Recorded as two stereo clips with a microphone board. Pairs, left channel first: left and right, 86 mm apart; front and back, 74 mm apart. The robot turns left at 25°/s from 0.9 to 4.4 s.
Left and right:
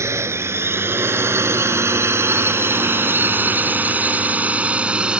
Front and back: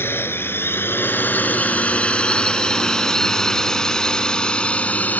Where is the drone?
45° right; by 5.2 s 30° right.